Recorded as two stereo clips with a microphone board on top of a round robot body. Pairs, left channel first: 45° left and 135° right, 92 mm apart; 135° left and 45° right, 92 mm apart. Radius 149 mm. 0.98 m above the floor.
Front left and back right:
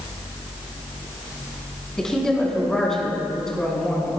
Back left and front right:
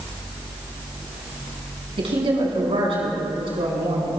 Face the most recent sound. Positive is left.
turn(degrees=-40)